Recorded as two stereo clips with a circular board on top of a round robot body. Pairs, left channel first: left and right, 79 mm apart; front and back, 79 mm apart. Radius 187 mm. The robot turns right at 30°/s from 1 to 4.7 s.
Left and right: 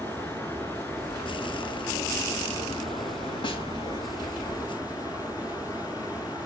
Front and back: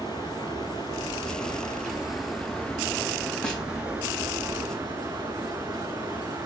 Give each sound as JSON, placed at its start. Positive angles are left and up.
{"t": 0.0, "sound": "running water", "azimuth_deg": 20, "distance_m": 1.0}
{"t": 3.4, "sound": "a snare drum", "azimuth_deg": 80, "distance_m": 2.0}